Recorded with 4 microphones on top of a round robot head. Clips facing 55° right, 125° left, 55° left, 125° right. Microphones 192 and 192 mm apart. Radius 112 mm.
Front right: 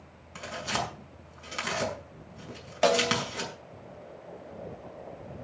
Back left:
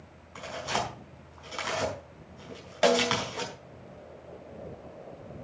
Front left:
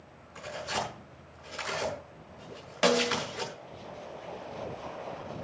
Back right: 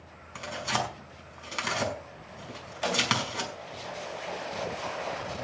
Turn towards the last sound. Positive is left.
turn(degrees=40)